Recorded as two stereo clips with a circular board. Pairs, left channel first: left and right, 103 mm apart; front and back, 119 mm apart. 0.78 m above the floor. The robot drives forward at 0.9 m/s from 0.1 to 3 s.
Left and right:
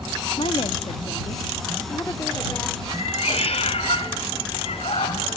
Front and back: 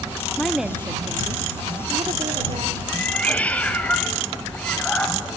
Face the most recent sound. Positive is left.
turn(degrees=80)